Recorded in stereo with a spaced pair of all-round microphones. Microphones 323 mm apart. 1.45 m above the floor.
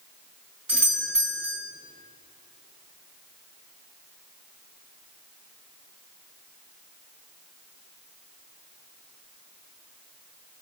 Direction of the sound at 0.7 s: 75° right (ahead or behind).